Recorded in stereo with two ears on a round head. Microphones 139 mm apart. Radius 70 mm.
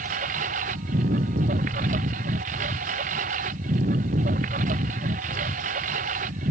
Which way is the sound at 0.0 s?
50° right (ahead or behind).